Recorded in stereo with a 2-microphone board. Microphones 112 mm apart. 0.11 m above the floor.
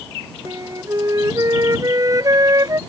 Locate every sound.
0.5 s a flute: 35° right (ahead or behind)